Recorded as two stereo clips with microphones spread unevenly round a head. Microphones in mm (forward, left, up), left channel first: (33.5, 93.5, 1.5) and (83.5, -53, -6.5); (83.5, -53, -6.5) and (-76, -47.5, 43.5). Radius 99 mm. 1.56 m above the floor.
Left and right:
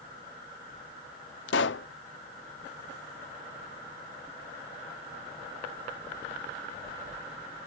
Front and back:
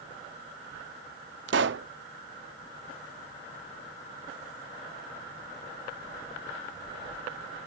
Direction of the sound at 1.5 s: 140° left.